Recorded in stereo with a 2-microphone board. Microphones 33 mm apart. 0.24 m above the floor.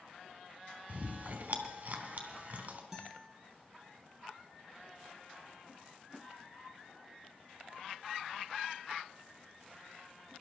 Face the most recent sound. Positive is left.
turn(degrees=-10)  # may be behind; listen again after turning